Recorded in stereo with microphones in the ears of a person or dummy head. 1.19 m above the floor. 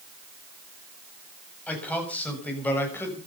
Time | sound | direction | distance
1.7 | a man speaking | 5° left (ahead or behind) | 7.5 m